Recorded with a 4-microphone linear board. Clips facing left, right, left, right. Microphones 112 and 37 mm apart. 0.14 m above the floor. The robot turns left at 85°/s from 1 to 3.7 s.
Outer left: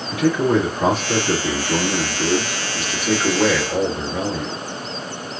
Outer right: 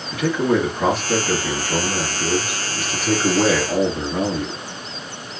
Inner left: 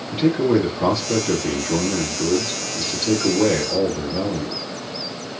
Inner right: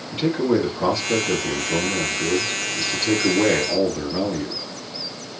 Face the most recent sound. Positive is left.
turn(degrees=-65)